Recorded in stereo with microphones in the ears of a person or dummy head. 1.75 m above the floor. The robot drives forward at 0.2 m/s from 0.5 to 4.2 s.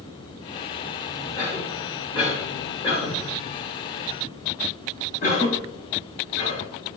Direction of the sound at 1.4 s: 25° left (ahead or behind).